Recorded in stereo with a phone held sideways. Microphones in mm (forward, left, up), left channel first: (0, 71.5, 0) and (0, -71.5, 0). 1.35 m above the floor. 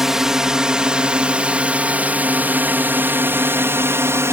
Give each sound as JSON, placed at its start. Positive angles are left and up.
{"t": 0.0, "sound": "a drone", "side_deg": -5}